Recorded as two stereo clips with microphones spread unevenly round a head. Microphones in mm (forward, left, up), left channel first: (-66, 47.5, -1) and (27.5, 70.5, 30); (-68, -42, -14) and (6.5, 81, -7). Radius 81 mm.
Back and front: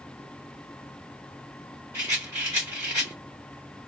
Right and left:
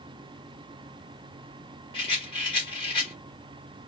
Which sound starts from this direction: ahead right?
A rattle, at 1.9 s.